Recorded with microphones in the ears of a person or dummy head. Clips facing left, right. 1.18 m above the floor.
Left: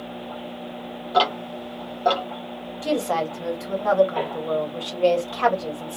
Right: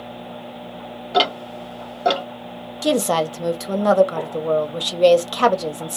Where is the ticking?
25° right (ahead or behind), 0.7 m.